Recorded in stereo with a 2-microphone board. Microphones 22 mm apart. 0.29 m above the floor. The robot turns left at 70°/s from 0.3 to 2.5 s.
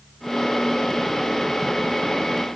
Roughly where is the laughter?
No laughter in this recording.